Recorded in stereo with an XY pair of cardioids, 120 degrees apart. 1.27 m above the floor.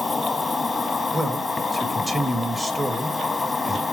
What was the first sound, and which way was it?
An insect, 15° left.